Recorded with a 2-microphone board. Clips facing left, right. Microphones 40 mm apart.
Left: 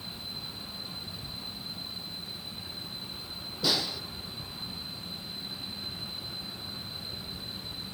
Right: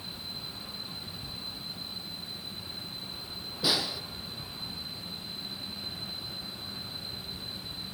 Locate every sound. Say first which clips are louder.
3.6 s a snare drum: even; 10° right (ahead or behind), 2 m